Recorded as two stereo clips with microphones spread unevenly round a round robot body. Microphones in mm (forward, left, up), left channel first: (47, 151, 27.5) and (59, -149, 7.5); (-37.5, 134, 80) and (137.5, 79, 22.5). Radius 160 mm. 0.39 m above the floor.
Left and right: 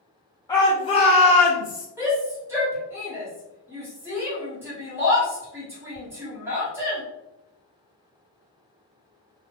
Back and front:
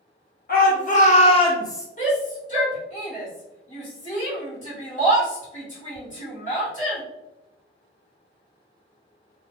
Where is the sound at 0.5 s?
165° left, 1.1 m; by 1.9 s 65° left, 1.0 m.